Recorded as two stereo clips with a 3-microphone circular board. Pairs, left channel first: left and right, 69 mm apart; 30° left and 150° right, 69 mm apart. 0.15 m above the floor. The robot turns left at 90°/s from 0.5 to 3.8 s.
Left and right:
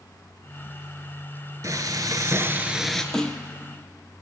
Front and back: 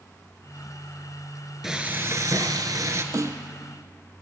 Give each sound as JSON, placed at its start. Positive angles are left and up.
{"t": 1.6, "sound": "frying", "azimuth_deg": -65, "distance_m": 1.2}
{"t": 3.1, "sound": "a snare drum", "azimuth_deg": 175, "distance_m": 0.9}